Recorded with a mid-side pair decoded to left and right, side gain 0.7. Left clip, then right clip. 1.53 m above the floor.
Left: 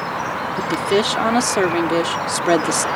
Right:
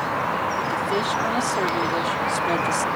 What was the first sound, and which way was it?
A woman speaking, 40° left.